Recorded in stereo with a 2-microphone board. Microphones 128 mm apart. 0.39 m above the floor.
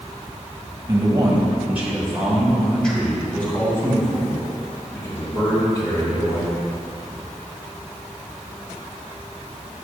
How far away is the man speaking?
About 1.2 m.